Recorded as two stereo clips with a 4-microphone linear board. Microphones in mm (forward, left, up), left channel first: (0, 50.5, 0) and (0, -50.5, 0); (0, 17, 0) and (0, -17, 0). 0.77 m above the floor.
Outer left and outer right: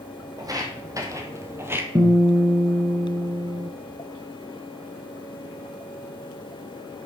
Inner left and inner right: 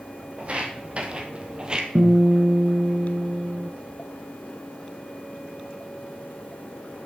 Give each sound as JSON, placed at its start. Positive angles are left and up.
{"t": 0.4, "sound": "footsteps", "side_deg": -40, "distance_m": 1.7}
{"t": 1.9, "sound": "a guitar", "side_deg": -50, "distance_m": 1.4}